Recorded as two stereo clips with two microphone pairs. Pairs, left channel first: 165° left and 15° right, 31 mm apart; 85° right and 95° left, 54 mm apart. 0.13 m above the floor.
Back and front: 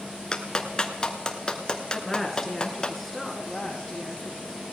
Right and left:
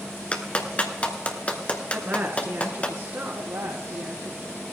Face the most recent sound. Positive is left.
turn(degrees=90)